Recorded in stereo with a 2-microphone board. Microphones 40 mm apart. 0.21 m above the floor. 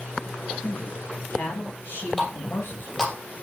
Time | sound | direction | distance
0.6 | a man speaking | 60° left (ahead or behind) | 3.5 m
2.2 | a running tap | 10° left (ahead or behind) | 3 m